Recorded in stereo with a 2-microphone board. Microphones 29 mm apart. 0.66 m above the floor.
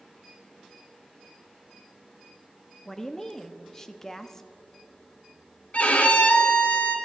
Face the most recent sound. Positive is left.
turn(degrees=55)  # may be behind; listen again after turning